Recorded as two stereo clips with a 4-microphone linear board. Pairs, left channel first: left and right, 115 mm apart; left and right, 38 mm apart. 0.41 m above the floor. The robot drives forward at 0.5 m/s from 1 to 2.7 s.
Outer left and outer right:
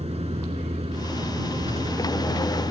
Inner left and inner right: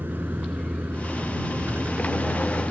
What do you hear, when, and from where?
0.0 s a vehicle: 75° right (ahead or behind); by 2.7 s 65° right (ahead or behind)